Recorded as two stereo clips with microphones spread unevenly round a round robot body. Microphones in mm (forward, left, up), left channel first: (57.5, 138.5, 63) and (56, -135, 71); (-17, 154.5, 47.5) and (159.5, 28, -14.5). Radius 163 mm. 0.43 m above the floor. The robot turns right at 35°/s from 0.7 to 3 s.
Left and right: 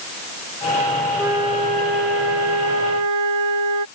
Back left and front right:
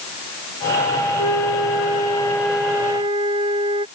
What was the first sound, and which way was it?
A flute, 175° right.